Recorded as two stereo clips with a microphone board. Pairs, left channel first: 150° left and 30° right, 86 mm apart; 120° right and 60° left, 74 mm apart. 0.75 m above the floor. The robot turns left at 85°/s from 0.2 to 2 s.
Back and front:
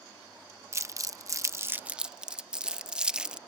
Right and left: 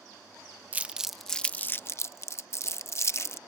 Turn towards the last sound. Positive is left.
turn(degrees=-105)